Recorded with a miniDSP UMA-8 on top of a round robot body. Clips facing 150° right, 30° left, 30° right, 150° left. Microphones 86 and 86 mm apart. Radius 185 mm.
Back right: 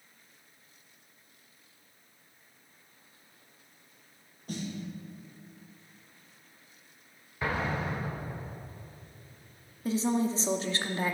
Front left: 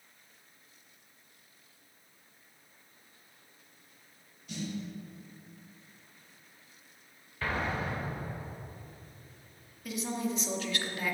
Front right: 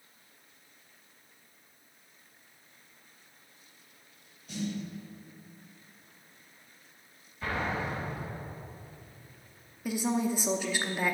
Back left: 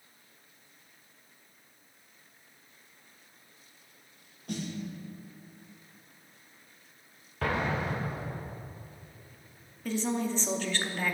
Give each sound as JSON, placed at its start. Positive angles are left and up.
{"t": 4.5, "sound": "a snare drum", "azimuth_deg": 170, "distance_m": 2.0}
{"t": 7.4, "sound": "an explosion", "azimuth_deg": 135, "distance_m": 1.3}
{"t": 9.8, "sound": "a woman speaking", "azimuth_deg": -105, "distance_m": 0.9}